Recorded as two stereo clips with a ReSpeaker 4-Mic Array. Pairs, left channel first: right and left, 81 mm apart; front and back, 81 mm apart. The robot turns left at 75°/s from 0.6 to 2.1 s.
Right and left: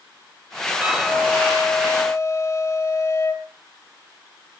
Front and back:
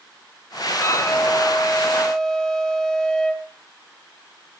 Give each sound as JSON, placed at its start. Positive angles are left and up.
{"t": 0.8, "sound": "a flute", "azimuth_deg": 25, "distance_m": 1.9}